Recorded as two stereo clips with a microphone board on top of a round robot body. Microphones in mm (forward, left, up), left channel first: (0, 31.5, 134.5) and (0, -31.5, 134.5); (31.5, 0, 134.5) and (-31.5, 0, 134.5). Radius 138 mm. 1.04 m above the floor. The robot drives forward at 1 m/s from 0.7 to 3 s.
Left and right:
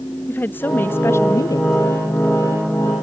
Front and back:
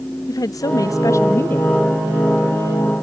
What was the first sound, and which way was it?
A woman speaking, 30° left.